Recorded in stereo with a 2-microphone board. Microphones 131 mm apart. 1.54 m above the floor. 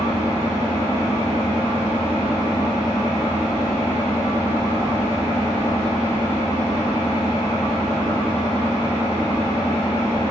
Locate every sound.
0.0 s an engine running: 20° left (ahead or behind), 1.0 m